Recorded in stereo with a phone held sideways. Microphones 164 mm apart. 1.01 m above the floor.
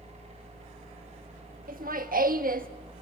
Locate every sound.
0.0 s a machine running: 40° right (ahead or behind), 5 m
1.7 s laughter: 60° right (ahead or behind), 1.3 m